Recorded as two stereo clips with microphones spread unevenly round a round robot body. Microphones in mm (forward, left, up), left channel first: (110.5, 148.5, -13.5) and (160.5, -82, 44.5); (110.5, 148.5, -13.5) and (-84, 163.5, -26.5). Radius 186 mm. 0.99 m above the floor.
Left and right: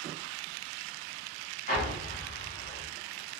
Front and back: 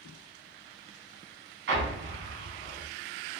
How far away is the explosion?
About 0.8 m.